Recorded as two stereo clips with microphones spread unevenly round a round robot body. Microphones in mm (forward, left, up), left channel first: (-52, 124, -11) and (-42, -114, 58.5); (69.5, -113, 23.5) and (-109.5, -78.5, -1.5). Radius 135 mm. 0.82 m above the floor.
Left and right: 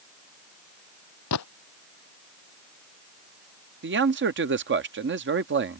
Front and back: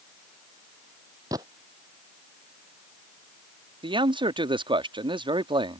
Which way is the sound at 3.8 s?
135° right.